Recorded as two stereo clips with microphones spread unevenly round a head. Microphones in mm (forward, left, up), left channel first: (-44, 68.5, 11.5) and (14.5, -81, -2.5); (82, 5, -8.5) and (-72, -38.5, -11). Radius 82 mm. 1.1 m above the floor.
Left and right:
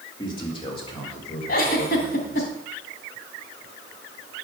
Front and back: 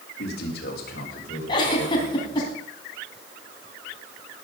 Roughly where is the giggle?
Left.